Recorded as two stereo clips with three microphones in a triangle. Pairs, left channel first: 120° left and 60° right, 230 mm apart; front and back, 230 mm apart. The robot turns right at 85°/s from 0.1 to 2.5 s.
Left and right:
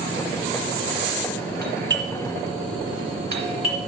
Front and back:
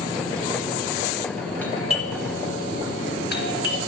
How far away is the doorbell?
About 2 m.